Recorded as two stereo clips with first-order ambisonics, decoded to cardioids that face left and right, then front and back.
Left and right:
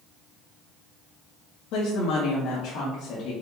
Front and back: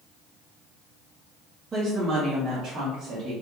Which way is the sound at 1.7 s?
105° left.